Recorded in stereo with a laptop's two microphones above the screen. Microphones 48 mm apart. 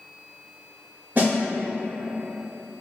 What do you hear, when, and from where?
1.1 s a snare drum: 40° right (ahead or behind), 0.9 m